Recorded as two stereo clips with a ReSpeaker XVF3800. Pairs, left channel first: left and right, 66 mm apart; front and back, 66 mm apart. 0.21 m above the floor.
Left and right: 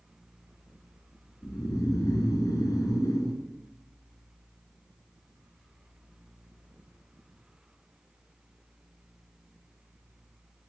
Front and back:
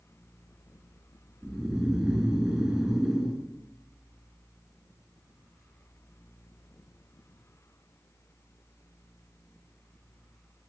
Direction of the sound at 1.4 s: 105° left.